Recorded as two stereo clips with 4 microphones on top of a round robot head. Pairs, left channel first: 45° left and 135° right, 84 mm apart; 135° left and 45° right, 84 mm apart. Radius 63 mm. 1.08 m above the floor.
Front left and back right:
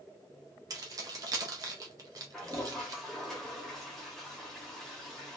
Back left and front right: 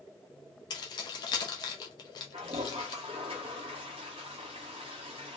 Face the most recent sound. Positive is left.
turn(degrees=-40)